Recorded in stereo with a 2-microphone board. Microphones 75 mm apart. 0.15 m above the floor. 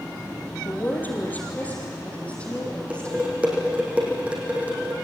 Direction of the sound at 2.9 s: 15° right (ahead or behind).